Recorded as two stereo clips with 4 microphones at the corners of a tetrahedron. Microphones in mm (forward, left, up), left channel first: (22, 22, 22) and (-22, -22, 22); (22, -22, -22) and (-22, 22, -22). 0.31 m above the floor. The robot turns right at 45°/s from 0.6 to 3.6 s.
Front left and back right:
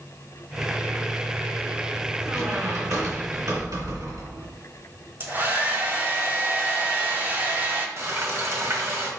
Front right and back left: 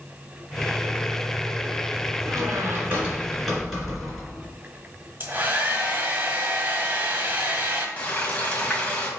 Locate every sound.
2.2 s a squeak: 165° left, 2.5 m; by 4.5 s 135° right, 2.5 m
5.2 s a hair dryer: 175° right, 1.3 m
8.0 s frying: 105° right, 1.4 m